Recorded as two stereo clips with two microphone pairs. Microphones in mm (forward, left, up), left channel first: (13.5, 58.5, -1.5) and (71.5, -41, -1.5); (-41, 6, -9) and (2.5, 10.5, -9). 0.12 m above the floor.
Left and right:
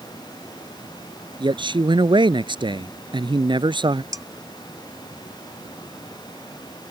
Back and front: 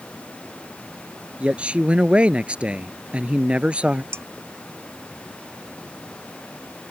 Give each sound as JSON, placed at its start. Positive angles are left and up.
{"t": 1.4, "sound": "a man speaking", "azimuth_deg": -45}
{"t": 4.1, "sound": "dishes clattering", "azimuth_deg": 0}